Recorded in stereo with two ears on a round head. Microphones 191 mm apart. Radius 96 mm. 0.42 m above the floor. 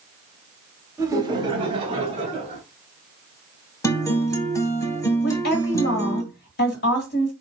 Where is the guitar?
15° left (ahead or behind), 1.0 m.